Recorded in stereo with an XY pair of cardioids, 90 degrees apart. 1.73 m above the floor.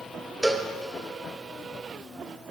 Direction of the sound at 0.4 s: 15° right.